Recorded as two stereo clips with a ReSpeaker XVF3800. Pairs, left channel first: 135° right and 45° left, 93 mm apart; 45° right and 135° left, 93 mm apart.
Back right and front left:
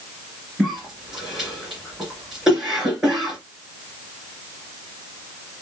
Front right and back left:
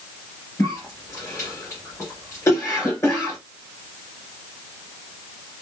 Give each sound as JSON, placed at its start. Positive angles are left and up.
{"t": 0.6, "sound": "a cough", "azimuth_deg": -35, "distance_m": 2.0}